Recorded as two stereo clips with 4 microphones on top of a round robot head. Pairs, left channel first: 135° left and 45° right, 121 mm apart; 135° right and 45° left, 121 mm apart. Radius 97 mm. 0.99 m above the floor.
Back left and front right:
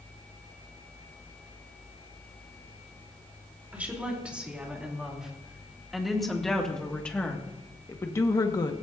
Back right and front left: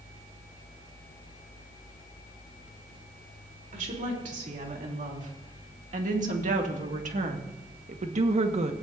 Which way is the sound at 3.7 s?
30° left.